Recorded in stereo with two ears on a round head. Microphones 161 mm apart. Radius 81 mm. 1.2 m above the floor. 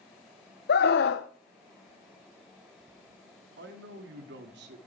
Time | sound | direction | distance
0.7 | a scream | 65° left (ahead or behind) | 0.8 m
3.6 | a man speaking | 70° right (ahead or behind) | 2.5 m